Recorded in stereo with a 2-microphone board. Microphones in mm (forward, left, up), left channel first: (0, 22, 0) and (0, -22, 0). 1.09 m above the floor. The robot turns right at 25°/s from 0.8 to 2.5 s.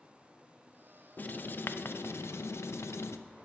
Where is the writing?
40° left, 0.5 m; by 3.2 s 75° left, 0.5 m.